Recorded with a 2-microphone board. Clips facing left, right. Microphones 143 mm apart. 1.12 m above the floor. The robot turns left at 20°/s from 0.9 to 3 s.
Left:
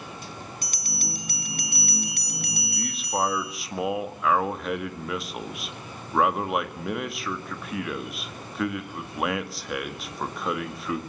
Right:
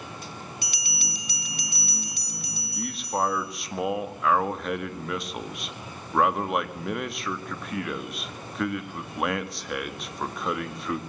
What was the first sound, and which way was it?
A bell, 130° left.